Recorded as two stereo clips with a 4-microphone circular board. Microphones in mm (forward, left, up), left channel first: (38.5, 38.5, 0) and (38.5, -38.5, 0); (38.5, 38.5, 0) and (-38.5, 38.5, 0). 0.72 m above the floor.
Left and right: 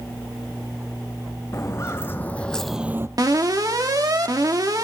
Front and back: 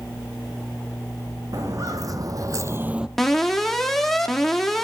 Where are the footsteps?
140° left, 2 m; by 3.1 s 100° right, 0.8 m.